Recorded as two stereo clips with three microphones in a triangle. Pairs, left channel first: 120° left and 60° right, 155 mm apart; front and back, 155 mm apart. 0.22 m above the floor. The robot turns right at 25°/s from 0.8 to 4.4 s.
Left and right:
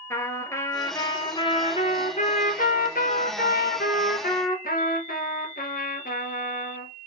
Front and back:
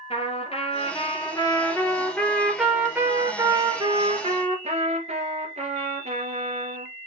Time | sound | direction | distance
0.1 | a trumpet | 50° left | 1.4 m